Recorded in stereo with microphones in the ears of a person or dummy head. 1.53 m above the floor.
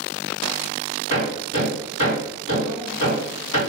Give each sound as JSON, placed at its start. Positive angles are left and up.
{"t": 1.1, "sound": "hammering", "side_deg": 35, "distance_m": 1.8}